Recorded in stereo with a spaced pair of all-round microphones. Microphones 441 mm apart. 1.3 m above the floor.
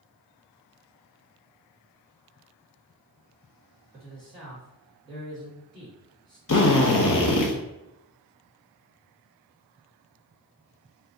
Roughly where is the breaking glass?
I don't hear breaking glass.